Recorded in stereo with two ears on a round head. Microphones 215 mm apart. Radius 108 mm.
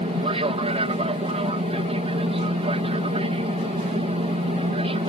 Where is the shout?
No shout in this recording.